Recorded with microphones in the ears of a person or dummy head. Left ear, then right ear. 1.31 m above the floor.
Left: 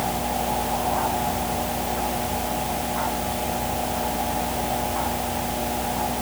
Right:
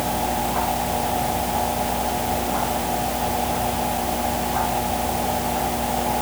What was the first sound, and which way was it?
Only background noise.